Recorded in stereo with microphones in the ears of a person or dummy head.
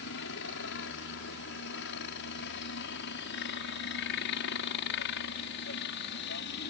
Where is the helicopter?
65° left (ahead or behind); by 6.7 s 60° left (ahead or behind).